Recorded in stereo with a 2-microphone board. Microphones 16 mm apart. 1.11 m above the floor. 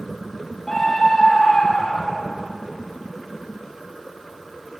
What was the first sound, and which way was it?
A scream, 15° left (ahead or behind).